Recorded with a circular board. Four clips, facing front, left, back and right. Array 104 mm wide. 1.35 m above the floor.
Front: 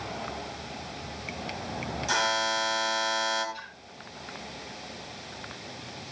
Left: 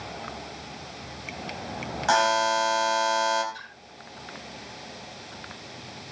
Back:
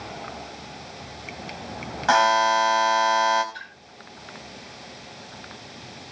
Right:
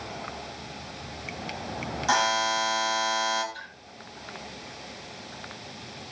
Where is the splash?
170° left, 8.5 m.